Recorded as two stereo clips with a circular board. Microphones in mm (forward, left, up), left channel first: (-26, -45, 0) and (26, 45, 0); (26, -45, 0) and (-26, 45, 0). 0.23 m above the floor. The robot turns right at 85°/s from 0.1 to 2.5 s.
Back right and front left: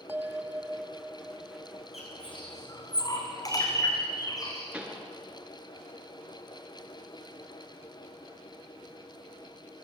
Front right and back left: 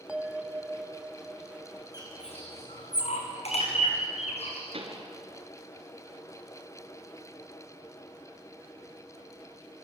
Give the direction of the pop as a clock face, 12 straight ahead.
7 o'clock.